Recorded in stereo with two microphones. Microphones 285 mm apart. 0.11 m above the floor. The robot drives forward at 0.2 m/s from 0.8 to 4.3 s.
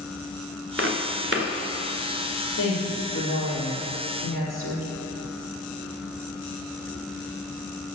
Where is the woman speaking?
50° left (ahead or behind), 3.5 m.